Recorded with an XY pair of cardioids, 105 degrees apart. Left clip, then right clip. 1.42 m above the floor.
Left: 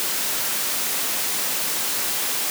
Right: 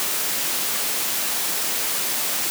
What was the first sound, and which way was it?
Only background noise.